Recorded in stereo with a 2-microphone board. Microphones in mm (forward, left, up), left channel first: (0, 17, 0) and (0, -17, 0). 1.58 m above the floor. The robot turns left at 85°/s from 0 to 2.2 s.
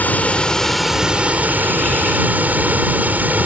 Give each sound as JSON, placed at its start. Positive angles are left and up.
{"t": 0.0, "sound": "running water", "azimuth_deg": 70}